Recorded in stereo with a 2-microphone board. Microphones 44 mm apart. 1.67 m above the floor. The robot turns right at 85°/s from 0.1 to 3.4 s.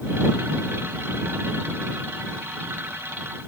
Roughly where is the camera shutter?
No camera shutter in this recording.